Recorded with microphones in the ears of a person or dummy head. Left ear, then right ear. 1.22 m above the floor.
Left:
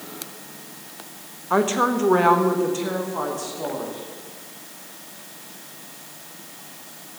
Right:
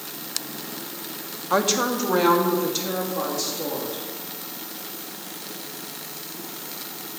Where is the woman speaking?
Centre (ahead or behind), 0.8 m; by 4.0 s 35° left (ahead or behind), 2.5 m.